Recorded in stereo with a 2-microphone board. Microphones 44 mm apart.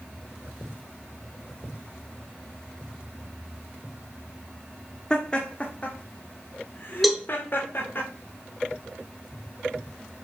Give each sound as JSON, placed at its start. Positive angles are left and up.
{"t": 5.1, "sound": "laughter", "side_deg": 20, "distance_m": 1.4}
{"t": 7.0, "sound": "a cowbell", "side_deg": 0, "distance_m": 1.0}